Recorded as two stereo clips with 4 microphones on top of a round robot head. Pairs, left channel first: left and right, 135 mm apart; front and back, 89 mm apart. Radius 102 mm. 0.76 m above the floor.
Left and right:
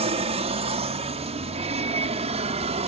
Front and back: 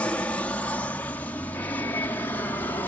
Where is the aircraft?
70° right; by 2.9 s 65° right.